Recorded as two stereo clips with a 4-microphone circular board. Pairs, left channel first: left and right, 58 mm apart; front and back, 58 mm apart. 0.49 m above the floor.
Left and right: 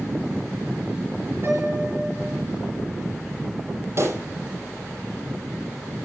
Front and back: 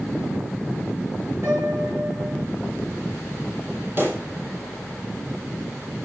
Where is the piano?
135° right, 7 m.